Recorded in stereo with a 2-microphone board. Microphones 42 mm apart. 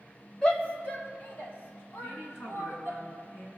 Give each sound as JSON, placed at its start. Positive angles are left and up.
{"t": 0.4, "sound": "a shout", "side_deg": 20, "distance_m": 0.9}
{"t": 2.0, "sound": "a woman speaking", "side_deg": 60, "distance_m": 2.5}